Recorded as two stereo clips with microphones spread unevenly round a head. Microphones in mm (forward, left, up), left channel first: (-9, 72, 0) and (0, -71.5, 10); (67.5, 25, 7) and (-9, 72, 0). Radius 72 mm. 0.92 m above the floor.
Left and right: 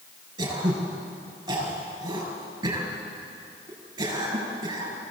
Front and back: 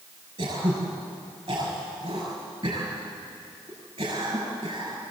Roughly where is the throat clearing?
Behind right.